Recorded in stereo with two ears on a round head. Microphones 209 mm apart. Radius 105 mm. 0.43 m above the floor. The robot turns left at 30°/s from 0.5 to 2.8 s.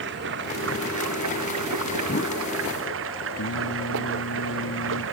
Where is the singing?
80° left.